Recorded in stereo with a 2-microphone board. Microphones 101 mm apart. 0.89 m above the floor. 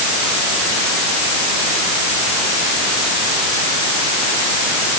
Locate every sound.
Only background noise.